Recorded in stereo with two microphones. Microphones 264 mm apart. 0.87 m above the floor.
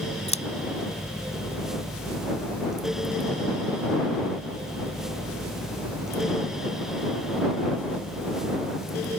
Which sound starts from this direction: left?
Scissors, at 0.3 s.